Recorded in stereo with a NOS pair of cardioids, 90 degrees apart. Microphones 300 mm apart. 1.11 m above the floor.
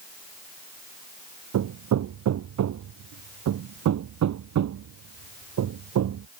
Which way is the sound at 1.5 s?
65° right.